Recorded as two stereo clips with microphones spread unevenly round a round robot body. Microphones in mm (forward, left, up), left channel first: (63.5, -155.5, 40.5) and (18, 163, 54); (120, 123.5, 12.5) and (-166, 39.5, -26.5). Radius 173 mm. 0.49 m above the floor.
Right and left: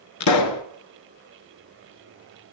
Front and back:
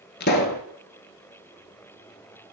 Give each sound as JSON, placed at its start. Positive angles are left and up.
{"t": 0.2, "sound": "a pop", "azimuth_deg": -45, "distance_m": 1.2}